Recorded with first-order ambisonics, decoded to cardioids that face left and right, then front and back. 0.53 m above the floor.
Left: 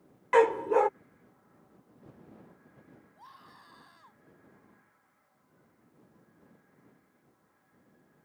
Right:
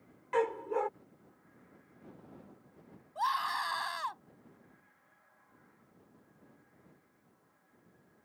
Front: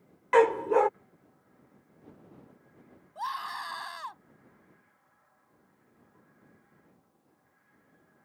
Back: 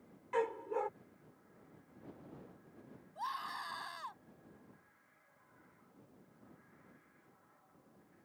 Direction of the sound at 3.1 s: 70° right.